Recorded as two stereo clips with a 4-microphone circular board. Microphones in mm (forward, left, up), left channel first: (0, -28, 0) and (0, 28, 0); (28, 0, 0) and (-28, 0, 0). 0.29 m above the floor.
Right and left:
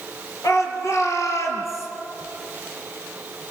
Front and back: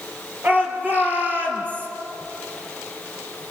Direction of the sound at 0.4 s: 120° right.